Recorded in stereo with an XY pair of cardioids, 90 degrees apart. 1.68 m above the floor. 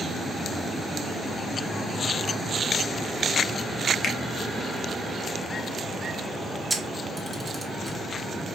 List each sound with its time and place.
4.0 s a finger snap: 60° left, 0.8 m
6.7 s a camera shutter: 15° right, 1.2 m